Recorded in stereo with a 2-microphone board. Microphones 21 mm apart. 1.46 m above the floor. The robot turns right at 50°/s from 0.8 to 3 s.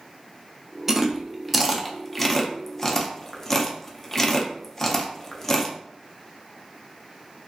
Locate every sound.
0.9 s chewing: 5° right (ahead or behind), 0.5 m; by 5.8 s 20° left (ahead or behind), 0.5 m